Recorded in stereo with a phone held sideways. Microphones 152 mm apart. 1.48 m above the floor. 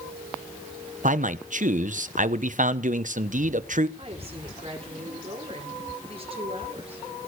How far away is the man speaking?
About 1.0 m.